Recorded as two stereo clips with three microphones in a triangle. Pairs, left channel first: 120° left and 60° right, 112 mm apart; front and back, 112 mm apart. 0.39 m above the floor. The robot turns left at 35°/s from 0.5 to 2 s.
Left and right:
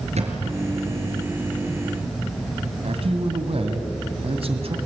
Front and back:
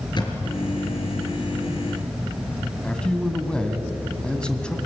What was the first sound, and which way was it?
A thud, 50° right.